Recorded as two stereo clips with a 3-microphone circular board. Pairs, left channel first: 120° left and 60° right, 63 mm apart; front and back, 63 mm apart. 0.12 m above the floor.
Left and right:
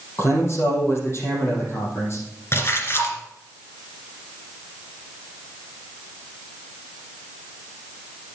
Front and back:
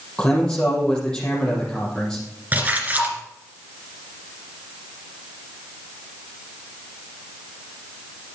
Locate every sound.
0.2 s a man speaking: 75° left, 4.5 m
2.5 s a splash: 135° left, 2.5 m